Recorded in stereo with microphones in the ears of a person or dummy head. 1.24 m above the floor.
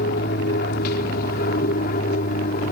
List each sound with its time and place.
0.0 s an aircraft: 55° left (ahead or behind); by 2.7 s 50° left (ahead or behind)